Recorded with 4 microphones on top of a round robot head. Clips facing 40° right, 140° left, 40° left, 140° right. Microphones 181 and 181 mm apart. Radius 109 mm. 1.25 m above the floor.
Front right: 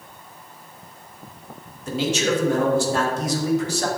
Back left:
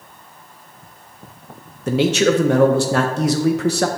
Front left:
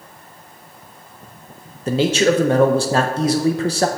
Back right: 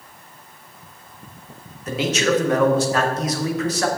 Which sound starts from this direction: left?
A man speaking, at 1.9 s.